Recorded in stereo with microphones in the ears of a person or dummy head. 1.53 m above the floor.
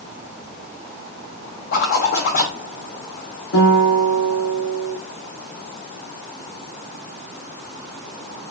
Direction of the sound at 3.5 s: 65° left (ahead or behind).